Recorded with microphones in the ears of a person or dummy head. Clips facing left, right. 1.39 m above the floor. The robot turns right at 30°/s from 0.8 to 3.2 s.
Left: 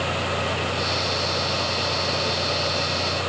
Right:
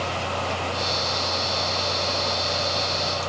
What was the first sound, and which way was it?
Only background noise.